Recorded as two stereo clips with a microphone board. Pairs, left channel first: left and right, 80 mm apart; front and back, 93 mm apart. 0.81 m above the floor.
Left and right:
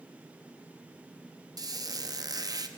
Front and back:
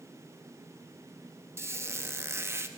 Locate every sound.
1.6 s a squeak: 120° right, 0.6 m